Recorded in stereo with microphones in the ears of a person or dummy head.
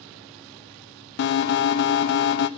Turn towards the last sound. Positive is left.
turn(degrees=55)  # may be behind; listen again after turning